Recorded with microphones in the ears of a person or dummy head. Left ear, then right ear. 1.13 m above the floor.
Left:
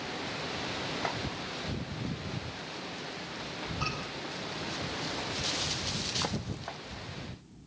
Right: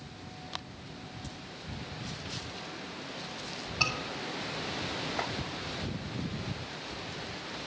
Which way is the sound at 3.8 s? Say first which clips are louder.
Right 6 dB; 40° right (ahead or behind).